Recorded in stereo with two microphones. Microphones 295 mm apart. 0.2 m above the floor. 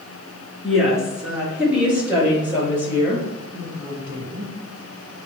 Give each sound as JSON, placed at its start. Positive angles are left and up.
{"t": 0.6, "sound": "a woman speaking", "side_deg": 0, "distance_m": 3.0}